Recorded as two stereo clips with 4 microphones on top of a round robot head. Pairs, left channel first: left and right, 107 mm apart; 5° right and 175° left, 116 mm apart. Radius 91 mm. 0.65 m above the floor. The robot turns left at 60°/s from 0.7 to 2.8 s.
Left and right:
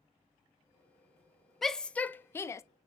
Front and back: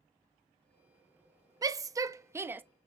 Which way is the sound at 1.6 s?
175° left.